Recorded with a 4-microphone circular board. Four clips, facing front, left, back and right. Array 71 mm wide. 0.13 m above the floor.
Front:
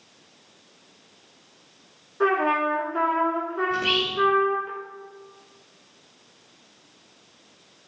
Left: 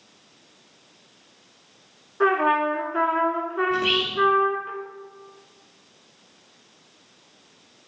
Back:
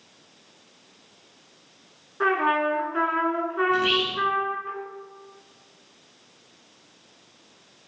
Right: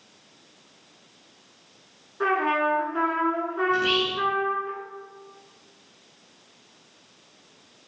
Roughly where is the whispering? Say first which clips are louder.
Right 2 dB, back 1 dB; behind left.